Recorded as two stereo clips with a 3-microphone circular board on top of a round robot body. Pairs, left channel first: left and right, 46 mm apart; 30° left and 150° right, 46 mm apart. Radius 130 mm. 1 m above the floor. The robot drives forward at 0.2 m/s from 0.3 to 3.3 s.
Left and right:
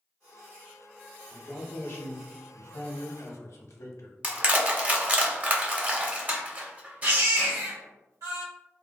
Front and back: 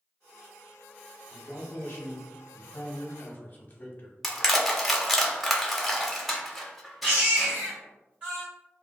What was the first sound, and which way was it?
A man speaking, 55° left.